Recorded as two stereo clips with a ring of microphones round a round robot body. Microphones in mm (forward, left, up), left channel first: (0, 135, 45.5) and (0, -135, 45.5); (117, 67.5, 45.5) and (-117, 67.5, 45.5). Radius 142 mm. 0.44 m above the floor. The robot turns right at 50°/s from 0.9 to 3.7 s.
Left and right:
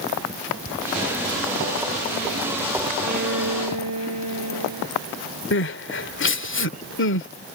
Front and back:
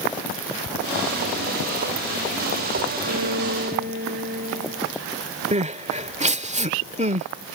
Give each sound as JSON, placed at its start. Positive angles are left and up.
{"t": 3.0, "sound": "a violin", "azimuth_deg": -155}
{"t": 5.5, "sound": "crying", "azimuth_deg": 125}